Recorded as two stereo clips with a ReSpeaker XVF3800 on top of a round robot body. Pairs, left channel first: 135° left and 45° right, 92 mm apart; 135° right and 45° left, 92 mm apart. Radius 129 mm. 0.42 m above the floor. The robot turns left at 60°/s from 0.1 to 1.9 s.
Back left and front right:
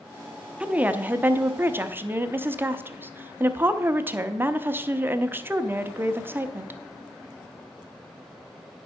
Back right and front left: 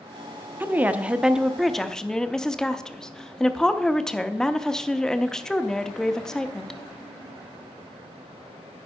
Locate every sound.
0.6 s a woman speaking: 15° left, 0.9 m; by 6.8 s 60° right, 0.9 m